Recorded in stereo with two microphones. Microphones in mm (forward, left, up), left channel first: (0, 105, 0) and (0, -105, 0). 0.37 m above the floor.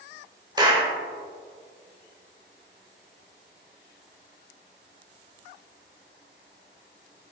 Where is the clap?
20° right (ahead or behind), 1.1 m.